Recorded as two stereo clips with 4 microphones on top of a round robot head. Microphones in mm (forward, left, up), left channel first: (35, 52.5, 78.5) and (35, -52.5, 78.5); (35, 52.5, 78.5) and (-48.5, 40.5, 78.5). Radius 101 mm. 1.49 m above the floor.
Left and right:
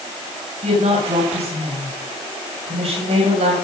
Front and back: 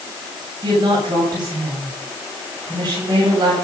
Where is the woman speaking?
125° right, 8 m.